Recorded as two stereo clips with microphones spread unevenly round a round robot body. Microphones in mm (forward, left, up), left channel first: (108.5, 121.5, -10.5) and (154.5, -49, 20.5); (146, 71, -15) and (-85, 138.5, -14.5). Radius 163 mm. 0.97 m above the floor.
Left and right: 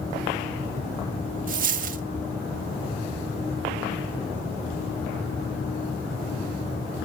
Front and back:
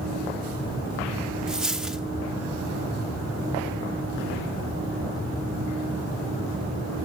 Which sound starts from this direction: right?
A dropped coin, at 1.5 s.